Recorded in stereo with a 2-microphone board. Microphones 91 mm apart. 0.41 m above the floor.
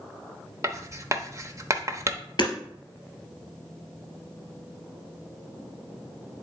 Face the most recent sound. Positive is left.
turn(degrees=50)  # may be behind; listen again after turning